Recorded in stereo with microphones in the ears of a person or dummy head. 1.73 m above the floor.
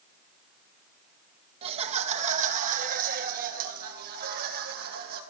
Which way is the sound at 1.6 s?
30° right (ahead or behind).